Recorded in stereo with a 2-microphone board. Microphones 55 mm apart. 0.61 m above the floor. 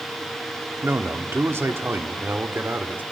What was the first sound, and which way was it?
A man speaking, 50° right (ahead or behind).